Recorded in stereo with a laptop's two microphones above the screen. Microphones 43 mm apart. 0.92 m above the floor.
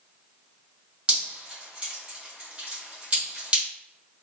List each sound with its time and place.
1.1 s dripping: 30° right (ahead or behind), 1.7 m